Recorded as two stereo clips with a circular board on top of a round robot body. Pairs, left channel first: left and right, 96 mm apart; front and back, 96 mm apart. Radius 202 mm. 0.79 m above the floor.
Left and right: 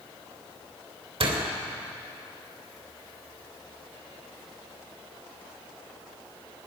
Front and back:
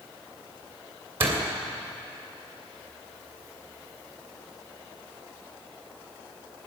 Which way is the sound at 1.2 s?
110° right.